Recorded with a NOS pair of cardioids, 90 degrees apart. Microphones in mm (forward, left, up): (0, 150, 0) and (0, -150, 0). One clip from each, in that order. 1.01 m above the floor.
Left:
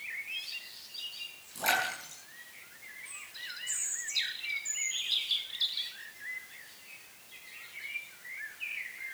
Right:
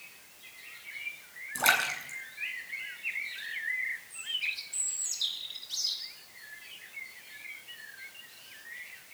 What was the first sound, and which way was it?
A splash, 65° right.